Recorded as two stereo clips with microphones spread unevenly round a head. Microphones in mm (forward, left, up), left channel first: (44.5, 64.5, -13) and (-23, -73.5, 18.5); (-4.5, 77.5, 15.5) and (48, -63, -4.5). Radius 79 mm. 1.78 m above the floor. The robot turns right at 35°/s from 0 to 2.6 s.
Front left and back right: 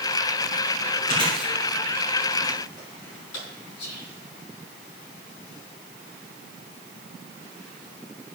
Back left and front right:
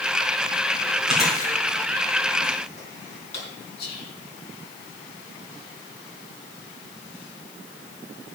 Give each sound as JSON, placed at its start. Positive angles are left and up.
{"t": 1.1, "sound": "chewing", "azimuth_deg": 20, "distance_m": 4.5}
{"t": 3.8, "sound": "whispering", "azimuth_deg": 95, "distance_m": 3.5}